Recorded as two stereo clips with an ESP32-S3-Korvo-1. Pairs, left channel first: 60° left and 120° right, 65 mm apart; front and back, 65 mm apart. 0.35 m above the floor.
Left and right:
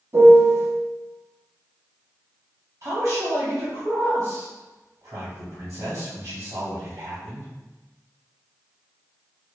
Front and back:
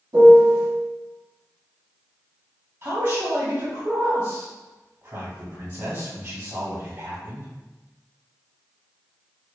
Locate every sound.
0.1 s a piano: 165° right, 0.7 m
2.8 s a man speaking: 145° right, 1.5 m